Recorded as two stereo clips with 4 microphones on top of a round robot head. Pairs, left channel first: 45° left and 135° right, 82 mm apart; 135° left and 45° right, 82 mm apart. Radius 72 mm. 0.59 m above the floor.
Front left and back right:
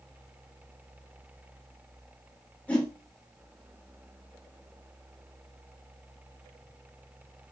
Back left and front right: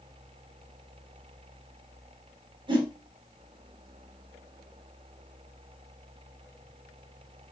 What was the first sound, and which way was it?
A whoosh, 30° right.